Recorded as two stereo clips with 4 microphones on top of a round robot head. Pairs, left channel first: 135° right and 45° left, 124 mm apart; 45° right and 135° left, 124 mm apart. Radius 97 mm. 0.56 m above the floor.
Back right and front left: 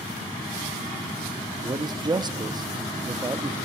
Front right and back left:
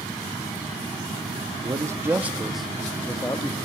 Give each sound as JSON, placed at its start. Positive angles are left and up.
{"t": 1.6, "sound": "a man speaking", "azimuth_deg": 85, "distance_m": 1.1}